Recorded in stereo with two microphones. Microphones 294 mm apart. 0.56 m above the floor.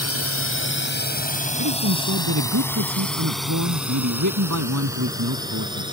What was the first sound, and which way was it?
A drone, 55° left (ahead or behind).